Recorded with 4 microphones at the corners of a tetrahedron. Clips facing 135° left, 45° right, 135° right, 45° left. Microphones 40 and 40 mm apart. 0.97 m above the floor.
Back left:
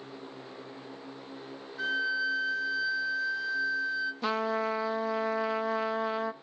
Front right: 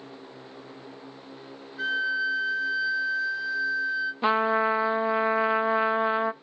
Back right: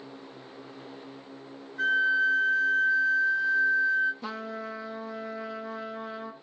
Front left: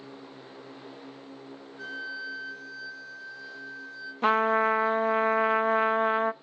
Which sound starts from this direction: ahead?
A trumpet, at 4.2 s.